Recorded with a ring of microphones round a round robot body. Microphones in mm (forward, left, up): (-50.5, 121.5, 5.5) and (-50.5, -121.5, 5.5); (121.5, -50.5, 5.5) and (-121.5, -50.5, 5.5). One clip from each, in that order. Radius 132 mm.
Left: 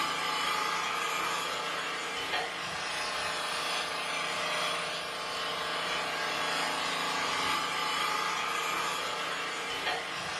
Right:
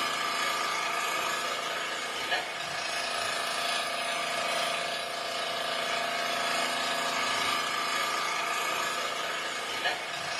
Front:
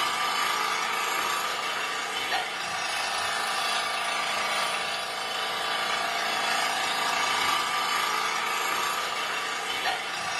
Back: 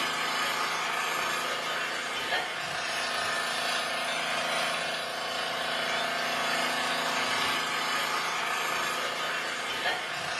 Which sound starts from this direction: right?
An engine running, at 0.0 s.